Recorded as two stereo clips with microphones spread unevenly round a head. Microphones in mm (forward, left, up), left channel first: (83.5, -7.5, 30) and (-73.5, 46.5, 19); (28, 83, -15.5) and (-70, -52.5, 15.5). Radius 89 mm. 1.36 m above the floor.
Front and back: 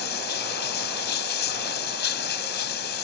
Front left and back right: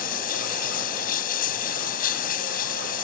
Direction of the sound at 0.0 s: 5° left.